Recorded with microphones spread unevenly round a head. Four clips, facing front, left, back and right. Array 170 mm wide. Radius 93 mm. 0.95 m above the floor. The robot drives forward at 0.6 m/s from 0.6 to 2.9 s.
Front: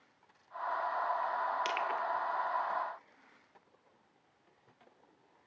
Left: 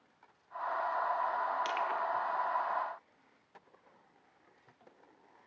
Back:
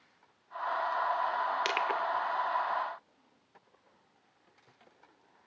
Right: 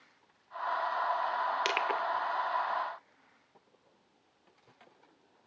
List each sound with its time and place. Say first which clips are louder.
1.6 s crushing: right 2 dB, back 3 dB; 115° right, 0.8 m; by 2.0 s 130° right, 0.9 m